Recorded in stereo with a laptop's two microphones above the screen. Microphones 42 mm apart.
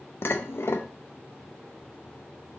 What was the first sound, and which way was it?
Dishes clattering, 60° left (ahead or behind).